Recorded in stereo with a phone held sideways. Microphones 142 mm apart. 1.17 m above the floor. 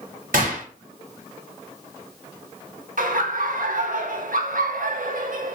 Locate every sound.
0.3 s a gunshot: 75° right (ahead or behind), 1.1 m
3.0 s laughter: 75° right (ahead or behind), 0.6 m